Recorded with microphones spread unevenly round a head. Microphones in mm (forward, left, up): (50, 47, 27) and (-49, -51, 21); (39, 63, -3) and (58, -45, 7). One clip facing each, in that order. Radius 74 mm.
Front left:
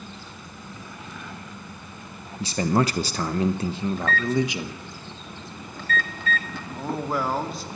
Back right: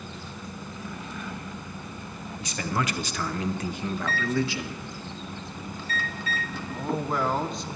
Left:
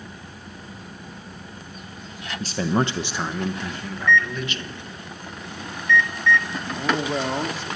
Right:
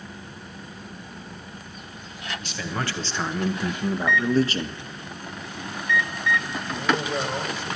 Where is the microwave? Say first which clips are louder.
Front left 2 dB, right 1 dB; straight ahead, 3 m.